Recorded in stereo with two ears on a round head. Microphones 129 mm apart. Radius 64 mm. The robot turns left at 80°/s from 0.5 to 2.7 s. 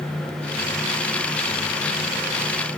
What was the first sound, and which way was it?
Only background noise.